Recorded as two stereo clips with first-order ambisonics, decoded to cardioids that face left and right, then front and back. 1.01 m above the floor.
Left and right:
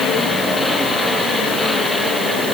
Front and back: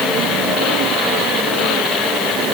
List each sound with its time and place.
Only background noise.